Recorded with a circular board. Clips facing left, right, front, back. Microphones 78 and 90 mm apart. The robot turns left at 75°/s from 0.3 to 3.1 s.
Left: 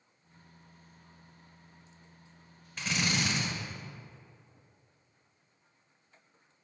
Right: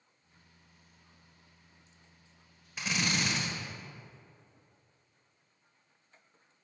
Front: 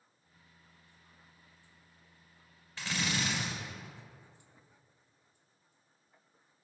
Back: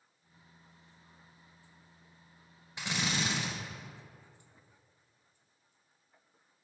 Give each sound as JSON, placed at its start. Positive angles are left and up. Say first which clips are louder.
{"t": 2.8, "sound": "a drill", "louder": "left 1 dB, back 1 dB", "azimuth_deg": -155, "distance_m": 1.4}